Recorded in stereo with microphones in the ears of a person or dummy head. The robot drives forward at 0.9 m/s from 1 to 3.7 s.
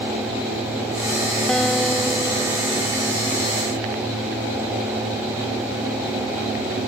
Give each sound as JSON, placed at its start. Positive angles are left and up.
{"t": 1.5, "sound": "a guitar", "side_deg": 5}